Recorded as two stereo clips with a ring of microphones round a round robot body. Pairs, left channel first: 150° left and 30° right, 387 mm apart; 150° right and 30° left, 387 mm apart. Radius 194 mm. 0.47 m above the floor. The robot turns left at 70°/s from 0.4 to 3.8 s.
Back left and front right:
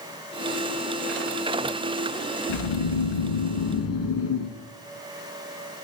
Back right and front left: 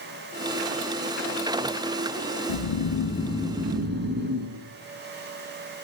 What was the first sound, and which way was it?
Snoring, 175° right.